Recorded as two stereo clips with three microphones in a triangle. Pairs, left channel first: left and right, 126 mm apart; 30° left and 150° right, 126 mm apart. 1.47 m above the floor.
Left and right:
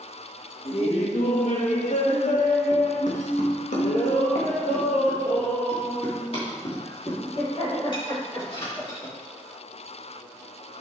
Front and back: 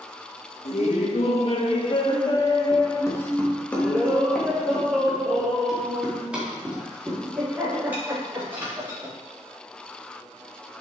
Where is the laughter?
55° left, 1.7 m; by 9.1 s 140° left, 4.5 m.